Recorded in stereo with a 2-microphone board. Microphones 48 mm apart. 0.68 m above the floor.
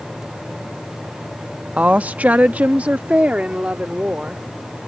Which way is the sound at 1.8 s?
30° right (ahead or behind).